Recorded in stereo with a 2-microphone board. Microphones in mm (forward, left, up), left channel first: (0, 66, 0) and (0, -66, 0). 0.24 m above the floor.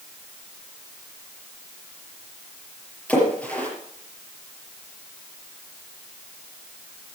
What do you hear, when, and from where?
3.1 s a splash: 10° left (ahead or behind), 6 m